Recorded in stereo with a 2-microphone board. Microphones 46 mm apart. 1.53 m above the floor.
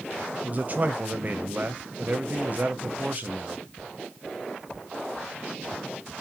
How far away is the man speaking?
About 0.7 m.